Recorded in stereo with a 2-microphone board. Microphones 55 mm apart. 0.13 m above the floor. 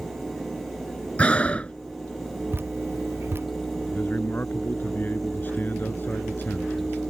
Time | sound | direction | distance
1.2 | breathing | 25° left (ahead or behind) | ?
2.5 | dripping | 45° right (ahead or behind) | ?
3.9 | a man speaking | 35° left (ahead or behind) | ?